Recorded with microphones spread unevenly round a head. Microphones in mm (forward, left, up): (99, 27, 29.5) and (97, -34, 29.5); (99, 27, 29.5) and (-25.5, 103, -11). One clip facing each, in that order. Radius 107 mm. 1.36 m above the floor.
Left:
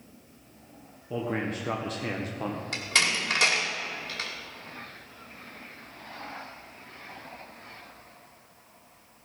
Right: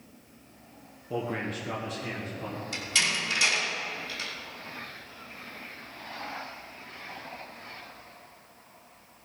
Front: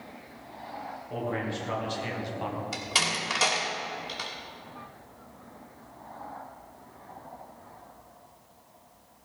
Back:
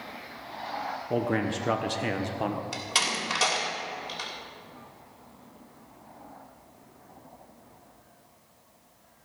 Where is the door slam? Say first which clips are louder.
Left 2 dB, even; 55° left, 2.5 m.